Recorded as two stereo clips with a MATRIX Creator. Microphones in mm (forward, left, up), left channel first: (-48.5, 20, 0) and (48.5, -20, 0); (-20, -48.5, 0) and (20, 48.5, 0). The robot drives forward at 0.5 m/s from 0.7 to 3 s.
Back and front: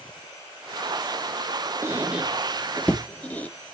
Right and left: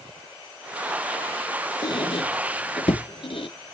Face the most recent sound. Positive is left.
turn(degrees=-130)